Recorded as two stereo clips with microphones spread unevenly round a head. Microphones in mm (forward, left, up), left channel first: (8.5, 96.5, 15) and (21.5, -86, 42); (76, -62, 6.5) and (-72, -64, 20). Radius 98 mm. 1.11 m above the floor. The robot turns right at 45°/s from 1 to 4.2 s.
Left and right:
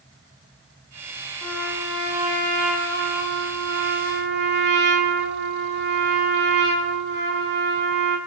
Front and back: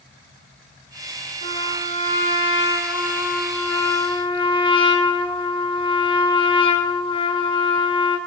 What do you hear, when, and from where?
1.4 s a trumpet: straight behind, 7 m; by 8.2 s 55° right, 7 m